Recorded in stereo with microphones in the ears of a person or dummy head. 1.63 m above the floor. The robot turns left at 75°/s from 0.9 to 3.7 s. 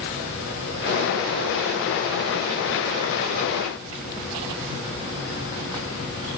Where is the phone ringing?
I don't hear a phone ringing.